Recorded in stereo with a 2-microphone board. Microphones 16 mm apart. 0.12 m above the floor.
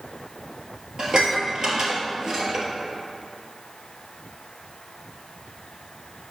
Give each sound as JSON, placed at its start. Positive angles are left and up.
{"t": 1.0, "sound": "dishes clattering", "side_deg": -45, "distance_m": 1.5}